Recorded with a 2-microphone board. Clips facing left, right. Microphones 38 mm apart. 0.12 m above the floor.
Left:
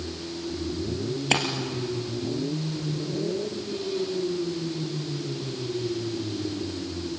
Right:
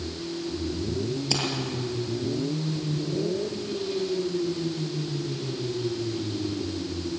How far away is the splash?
About 3 m.